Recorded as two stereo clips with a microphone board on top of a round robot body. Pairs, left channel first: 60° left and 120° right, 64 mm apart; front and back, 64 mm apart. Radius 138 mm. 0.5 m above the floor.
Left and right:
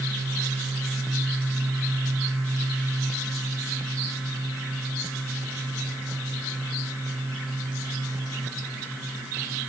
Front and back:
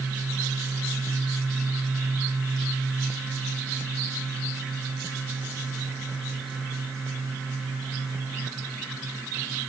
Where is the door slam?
No door slam in this recording.